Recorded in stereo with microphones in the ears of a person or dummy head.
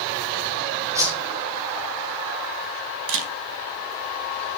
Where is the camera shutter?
75° right (ahead or behind), 3 m.